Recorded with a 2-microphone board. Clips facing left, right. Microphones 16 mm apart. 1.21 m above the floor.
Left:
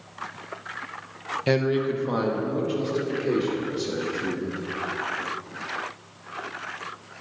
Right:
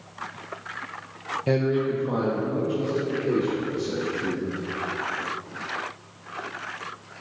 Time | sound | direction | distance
1.5 | a man speaking | 45° left (ahead or behind) | 0.9 m